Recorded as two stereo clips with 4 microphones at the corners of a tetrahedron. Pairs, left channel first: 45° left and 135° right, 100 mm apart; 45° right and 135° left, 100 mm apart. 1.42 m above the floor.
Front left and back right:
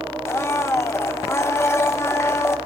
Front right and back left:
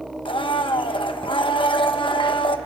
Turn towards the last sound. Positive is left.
turn(degrees=-15)